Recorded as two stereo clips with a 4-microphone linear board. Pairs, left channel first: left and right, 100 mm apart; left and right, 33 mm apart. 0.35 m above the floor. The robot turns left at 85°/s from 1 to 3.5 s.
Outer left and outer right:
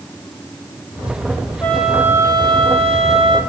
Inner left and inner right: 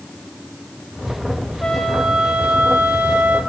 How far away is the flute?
About 3.5 m.